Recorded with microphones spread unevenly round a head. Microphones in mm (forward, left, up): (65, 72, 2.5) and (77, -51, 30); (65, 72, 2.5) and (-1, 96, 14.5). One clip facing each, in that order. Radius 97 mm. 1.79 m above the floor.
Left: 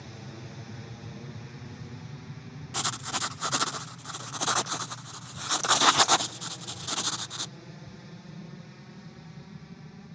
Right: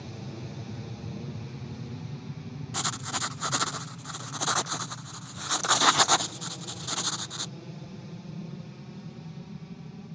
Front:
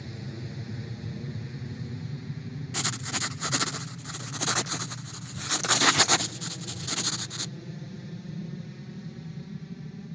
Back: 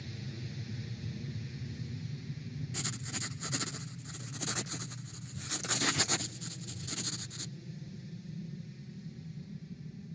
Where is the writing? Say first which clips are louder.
Left 1 dB, front 12 dB; 5° left.